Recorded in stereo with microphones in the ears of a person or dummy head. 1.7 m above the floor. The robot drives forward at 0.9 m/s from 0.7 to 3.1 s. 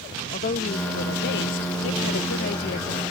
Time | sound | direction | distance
0.3 | a woman speaking | 45° left (ahead or behind) | ?